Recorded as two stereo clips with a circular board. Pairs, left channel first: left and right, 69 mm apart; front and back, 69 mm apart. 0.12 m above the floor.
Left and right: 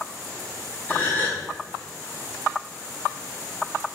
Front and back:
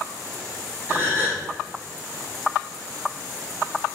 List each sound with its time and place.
0.9 s a gasp: 135° left, 0.9 m